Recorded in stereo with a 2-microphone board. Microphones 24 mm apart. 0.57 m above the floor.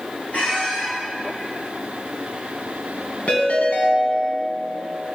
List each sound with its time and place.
0.3 s a squeak: 60° left (ahead or behind), 4 m
3.3 s a ringtone: 65° left (ahead or behind), 2.5 m